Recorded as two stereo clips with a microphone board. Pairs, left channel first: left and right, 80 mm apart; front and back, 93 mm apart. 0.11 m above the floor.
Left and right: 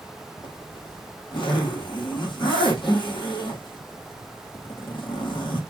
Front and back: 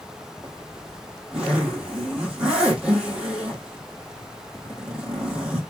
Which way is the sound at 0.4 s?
100° left.